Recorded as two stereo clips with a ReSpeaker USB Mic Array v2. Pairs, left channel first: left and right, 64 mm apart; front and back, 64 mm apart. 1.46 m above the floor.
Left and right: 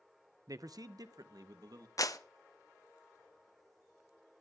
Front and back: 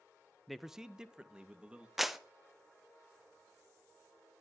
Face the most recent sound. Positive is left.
turn(degrees=95)